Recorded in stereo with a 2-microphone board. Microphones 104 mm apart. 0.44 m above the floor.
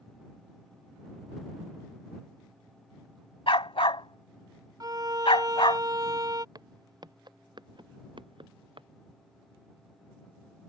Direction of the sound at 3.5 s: 70° left (ahead or behind).